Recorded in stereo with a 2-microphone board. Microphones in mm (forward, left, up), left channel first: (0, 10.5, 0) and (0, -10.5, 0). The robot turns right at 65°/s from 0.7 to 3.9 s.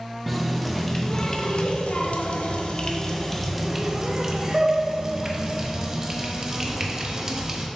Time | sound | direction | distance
0.3 | a running tap | 5° right | 0.8 m